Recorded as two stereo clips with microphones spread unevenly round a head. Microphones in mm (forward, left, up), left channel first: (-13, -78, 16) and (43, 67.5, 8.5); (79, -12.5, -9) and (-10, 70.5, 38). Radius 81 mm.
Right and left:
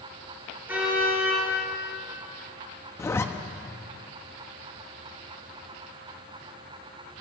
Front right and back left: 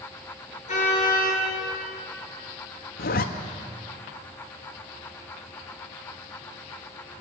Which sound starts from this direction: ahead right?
A zipper, at 3.0 s.